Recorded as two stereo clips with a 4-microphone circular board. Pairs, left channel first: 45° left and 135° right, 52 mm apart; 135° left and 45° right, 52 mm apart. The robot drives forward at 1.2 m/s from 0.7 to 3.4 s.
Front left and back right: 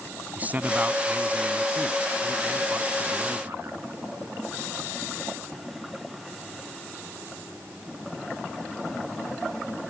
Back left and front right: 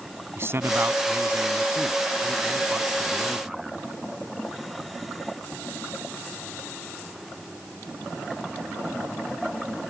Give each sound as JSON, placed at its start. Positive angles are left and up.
{"t": 0.4, "sound": "a man speaking", "azimuth_deg": -80}